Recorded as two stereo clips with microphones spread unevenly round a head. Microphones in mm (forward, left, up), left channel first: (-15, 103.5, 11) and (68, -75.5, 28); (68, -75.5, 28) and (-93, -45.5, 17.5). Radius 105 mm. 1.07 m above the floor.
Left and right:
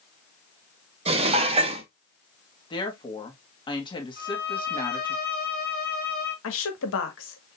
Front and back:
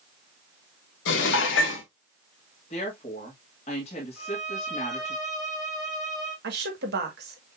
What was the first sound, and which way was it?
Dishes clattering, 5° right.